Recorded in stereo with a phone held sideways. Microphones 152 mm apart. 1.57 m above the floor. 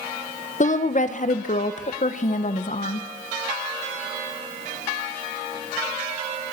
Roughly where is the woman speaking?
Left.